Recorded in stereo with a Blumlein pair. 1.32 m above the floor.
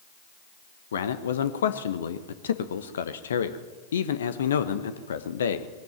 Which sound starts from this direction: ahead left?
A man speaking, at 0.9 s.